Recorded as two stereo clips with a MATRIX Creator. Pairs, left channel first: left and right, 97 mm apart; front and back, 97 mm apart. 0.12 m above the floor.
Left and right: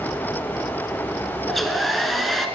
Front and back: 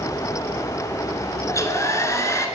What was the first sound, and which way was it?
A hair dryer, straight ahead.